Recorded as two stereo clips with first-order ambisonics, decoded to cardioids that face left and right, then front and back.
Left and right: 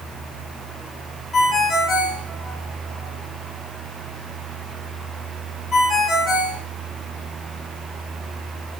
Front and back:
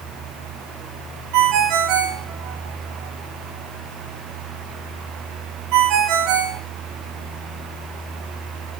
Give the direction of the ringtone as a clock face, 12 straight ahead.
7 o'clock.